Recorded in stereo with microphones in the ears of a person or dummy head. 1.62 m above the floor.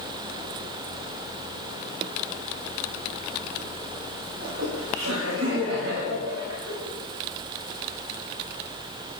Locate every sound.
4.4 s laughter: 80° right, 7.5 m; by 6.7 s 85° right, 8 m